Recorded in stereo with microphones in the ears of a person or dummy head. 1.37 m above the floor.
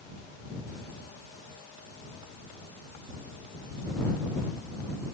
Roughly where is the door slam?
No door slam in this recording.